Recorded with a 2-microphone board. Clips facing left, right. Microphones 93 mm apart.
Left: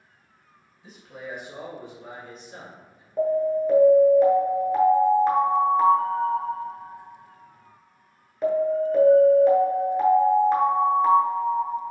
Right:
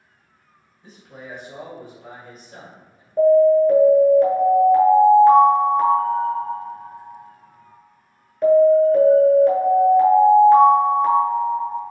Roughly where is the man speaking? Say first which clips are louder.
Left 1 dB; centre.